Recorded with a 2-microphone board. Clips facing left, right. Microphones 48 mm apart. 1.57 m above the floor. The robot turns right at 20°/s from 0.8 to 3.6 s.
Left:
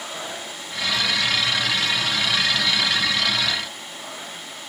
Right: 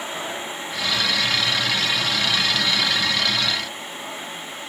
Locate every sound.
Only background noise.